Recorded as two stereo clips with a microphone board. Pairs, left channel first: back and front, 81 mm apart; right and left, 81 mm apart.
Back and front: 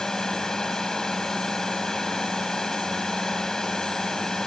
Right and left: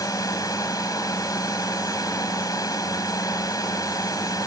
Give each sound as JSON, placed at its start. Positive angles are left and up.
{"t": 0.0, "sound": "a drone", "azimuth_deg": -100}